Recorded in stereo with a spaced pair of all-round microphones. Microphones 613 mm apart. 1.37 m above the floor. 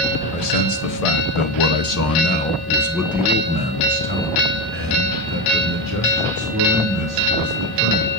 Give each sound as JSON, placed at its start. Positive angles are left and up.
{"t": 0.3, "sound": "a man speaking", "side_deg": 80, "distance_m": 1.3}